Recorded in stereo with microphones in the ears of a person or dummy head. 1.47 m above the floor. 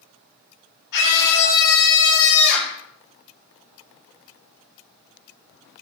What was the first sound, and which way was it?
A scream, 70° left (ahead or behind).